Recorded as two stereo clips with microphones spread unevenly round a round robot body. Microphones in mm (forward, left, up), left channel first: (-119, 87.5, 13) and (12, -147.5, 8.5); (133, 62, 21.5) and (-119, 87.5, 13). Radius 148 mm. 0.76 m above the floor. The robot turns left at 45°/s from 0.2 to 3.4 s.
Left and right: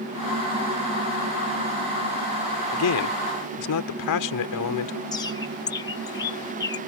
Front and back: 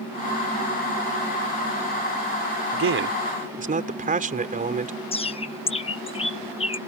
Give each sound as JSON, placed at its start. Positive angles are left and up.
{"t": 2.7, "sound": "a man speaking", "azimuth_deg": 150}
{"t": 5.1, "sound": "a bird", "azimuth_deg": 50}